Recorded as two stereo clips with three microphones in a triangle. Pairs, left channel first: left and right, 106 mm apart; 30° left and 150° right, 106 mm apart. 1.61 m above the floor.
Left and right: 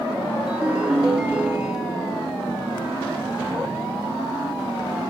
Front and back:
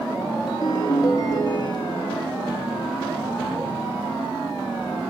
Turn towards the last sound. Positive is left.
turn(degrees=-10)